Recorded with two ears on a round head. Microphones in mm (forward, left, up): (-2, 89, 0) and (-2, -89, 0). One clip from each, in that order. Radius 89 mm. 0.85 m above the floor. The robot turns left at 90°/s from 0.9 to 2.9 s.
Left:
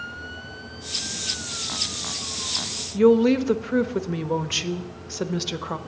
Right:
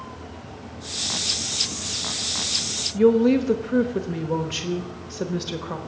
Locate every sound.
2.9 s a woman speaking: 30° left (ahead or behind), 0.9 m